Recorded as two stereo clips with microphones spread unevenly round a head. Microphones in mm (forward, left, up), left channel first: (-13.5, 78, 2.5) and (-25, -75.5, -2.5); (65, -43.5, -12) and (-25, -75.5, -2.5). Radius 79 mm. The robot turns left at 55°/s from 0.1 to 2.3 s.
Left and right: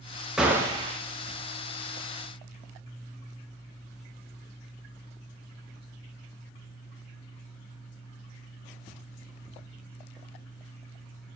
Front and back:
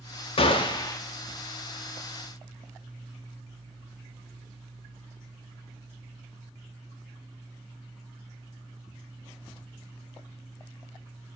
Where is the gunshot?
5° right, 0.8 m; by 1.0 s 40° right, 0.8 m.